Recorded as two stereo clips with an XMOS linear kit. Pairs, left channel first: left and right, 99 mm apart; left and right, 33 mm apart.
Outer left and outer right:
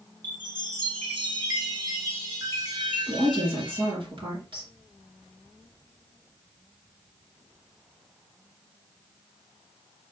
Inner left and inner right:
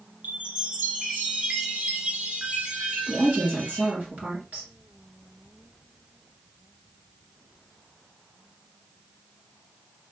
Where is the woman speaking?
60° right (ahead or behind), 2.5 m.